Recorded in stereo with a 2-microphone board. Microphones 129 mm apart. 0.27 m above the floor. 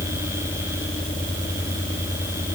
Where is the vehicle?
80° left; by 2.6 s 75° left (ahead or behind).